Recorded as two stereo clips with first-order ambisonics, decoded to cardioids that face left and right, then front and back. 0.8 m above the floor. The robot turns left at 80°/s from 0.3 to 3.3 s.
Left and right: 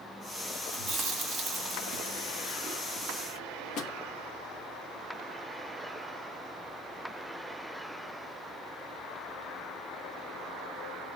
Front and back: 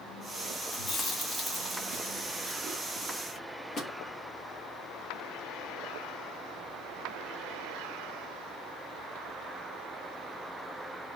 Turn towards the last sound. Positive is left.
turn(degrees=60)